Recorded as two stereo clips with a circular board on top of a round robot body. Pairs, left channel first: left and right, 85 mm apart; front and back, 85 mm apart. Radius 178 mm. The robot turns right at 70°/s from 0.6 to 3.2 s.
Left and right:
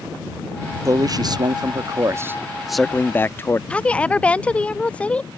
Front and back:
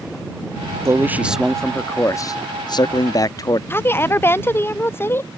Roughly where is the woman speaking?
Ahead left.